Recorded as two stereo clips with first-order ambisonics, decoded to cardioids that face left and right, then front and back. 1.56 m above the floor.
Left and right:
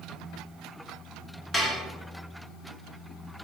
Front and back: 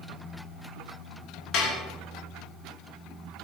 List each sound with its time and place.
1.5 s dishes clattering: 15° left, 1.1 m